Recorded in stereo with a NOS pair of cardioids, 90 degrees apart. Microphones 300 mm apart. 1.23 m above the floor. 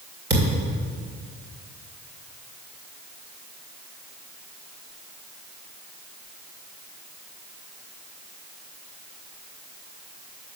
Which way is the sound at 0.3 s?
35° right.